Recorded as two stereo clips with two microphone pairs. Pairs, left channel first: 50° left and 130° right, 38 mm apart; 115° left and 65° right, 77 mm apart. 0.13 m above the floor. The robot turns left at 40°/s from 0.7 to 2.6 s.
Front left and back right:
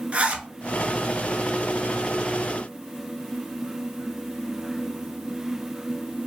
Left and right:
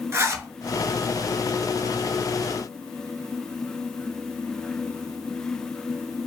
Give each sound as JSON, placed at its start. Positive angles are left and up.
{"t": 0.1, "sound": "a zipper", "azimuth_deg": -95, "distance_m": 0.6}